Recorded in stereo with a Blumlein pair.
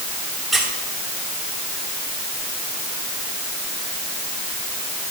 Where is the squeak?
5° right, 2.5 m.